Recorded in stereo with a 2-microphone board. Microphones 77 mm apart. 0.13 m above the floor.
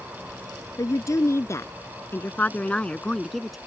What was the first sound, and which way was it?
A woman speaking, 50° left (ahead or behind).